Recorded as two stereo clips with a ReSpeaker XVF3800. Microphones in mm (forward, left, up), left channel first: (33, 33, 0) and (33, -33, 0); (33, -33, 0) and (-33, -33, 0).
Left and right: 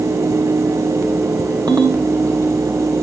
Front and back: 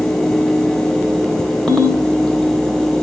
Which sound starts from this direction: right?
A ringtone, at 1.7 s.